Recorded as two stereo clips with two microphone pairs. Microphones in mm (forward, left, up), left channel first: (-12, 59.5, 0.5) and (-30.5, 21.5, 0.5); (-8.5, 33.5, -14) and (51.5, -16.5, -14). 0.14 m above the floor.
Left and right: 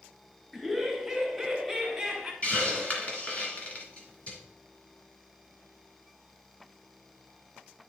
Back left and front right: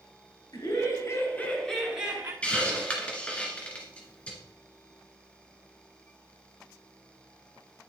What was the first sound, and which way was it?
Laughter, 150° left.